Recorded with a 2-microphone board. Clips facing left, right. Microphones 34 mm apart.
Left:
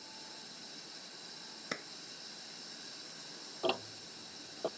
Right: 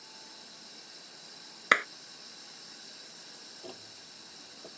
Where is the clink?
I don't hear a clink.